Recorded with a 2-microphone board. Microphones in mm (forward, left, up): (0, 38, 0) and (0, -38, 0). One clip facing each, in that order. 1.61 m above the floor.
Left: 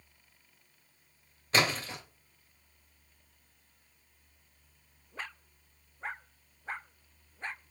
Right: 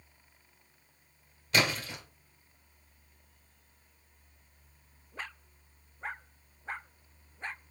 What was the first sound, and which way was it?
A splash, 35° left (ahead or behind).